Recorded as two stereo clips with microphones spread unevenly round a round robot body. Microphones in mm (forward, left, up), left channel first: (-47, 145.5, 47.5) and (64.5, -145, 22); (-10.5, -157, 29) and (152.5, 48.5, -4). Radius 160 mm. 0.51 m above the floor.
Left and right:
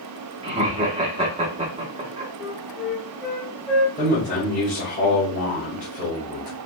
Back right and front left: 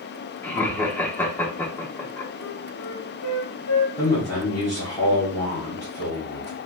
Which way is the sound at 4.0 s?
155° left.